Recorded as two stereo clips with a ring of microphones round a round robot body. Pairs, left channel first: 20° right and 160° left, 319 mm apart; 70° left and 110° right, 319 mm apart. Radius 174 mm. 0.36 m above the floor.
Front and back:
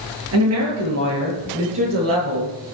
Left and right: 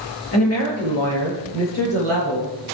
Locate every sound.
0.3 s a woman speaking: 110° left, 9 m; by 2.8 s 115° left, 11 m